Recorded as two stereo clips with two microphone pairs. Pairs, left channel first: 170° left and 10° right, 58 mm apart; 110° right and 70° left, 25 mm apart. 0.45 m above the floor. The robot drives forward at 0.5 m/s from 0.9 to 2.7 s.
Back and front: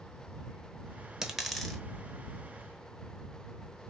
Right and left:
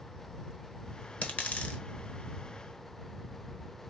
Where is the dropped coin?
95° right, 1.0 m; by 1.8 s 110° right, 1.0 m.